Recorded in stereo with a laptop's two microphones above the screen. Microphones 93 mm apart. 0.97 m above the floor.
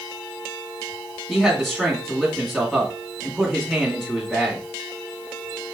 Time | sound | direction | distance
1.3 | a man speaking | centre (ahead or behind) | 2.5 m